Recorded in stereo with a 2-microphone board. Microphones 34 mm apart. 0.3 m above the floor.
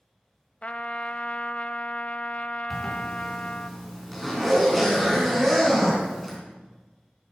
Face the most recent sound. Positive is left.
turn(degrees=10)  # may be behind; listen again after turning